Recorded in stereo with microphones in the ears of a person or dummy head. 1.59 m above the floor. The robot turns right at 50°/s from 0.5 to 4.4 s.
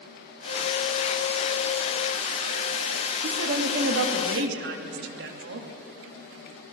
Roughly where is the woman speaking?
Behind right.